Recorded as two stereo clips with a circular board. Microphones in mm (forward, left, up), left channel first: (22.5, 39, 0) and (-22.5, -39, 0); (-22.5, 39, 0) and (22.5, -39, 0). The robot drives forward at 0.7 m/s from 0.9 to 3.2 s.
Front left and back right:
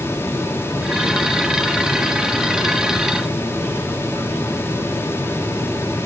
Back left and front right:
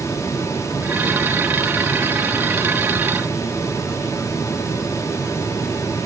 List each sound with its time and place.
Only background noise.